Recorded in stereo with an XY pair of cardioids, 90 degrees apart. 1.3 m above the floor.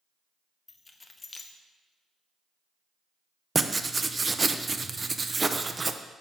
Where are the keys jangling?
30° left, 0.9 m.